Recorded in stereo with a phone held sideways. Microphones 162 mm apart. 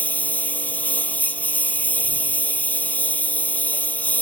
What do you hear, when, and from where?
0.0 s a lawn mower: 10° left (ahead or behind)